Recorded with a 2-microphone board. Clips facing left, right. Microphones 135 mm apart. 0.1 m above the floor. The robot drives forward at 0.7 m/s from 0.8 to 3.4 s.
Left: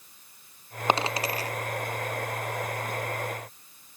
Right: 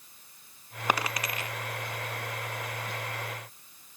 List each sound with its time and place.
0.9 s a dropped coin: 25° left (ahead or behind), 0.9 m; by 1.5 s 40° left (ahead or behind), 0.6 m